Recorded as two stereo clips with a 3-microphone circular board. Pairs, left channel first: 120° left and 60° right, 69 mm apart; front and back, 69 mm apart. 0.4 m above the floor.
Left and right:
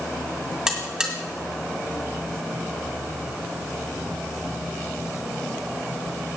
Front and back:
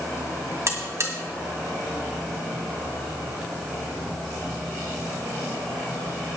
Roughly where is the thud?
No thud in this recording.